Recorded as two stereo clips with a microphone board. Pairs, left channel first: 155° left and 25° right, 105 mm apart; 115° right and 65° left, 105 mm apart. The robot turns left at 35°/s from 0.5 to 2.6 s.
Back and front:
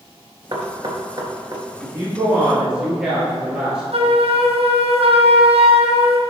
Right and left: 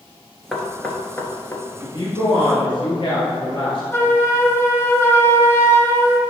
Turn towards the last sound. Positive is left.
turn(degrees=-45)